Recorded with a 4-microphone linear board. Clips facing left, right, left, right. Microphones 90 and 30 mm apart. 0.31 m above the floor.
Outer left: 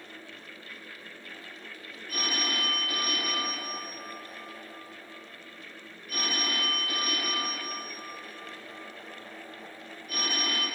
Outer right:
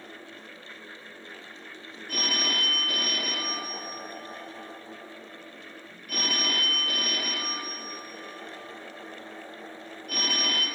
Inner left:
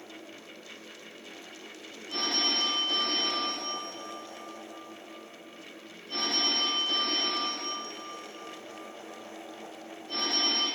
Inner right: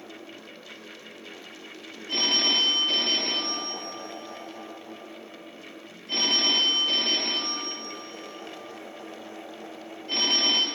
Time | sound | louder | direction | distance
2.1 | a phone ringing | outer right 1 dB, inner right 6 dB | 65° right (ahead or behind) | 3.5 m